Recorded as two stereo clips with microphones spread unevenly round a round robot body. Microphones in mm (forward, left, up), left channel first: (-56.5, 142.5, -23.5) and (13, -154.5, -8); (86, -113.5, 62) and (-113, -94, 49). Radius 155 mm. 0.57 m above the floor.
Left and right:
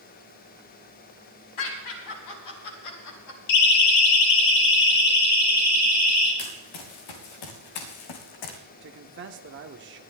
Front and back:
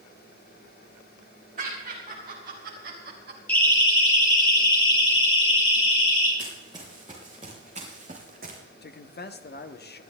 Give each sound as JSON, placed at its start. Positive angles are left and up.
{"t": 1.6, "sound": "laughter", "azimuth_deg": 115, "distance_m": 5.0}
{"t": 3.5, "sound": "a siren", "azimuth_deg": 80, "distance_m": 2.0}
{"t": 6.4, "sound": "running footsteps", "azimuth_deg": 95, "distance_m": 3.5}
{"t": 8.8, "sound": "a man speaking", "azimuth_deg": -30, "distance_m": 1.2}